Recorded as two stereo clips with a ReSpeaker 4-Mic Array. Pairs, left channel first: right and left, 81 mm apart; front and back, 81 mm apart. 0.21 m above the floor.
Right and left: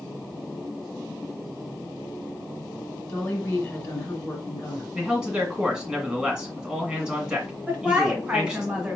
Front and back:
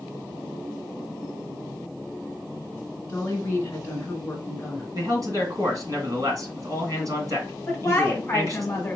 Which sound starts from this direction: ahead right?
A woman speaking, at 3.1 s.